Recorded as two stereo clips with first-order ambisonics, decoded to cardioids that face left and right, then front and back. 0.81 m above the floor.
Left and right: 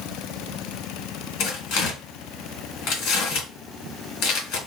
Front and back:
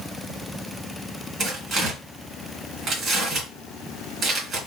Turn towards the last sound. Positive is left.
turn(degrees=120)